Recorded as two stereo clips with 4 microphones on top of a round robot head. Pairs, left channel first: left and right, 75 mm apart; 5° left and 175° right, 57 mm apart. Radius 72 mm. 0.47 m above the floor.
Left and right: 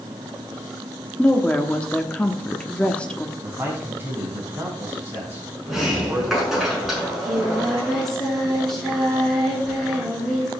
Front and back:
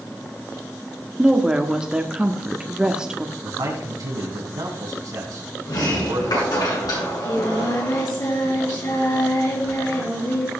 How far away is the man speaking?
About 4 m.